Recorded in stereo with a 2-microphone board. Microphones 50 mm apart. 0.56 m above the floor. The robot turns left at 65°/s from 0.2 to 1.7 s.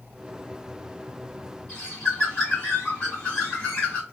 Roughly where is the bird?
Left.